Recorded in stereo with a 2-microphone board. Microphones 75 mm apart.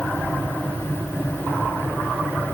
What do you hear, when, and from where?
Only background noise.